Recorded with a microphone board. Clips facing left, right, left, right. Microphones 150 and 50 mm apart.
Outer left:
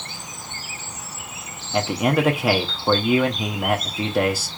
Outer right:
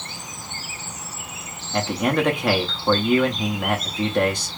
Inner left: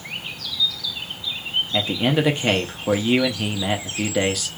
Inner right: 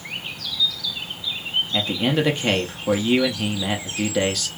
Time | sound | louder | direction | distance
1.7 | a man speaking | outer left 1 dB, inner left 1 dB | 5° left (ahead or behind) | 0.6 m